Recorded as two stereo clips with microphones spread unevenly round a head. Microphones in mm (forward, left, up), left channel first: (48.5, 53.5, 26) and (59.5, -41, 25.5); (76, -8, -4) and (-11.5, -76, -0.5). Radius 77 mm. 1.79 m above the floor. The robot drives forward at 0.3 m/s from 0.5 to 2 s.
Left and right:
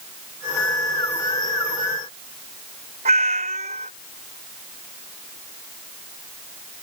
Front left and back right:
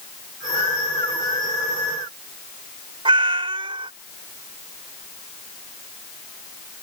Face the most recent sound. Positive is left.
turn(degrees=-105)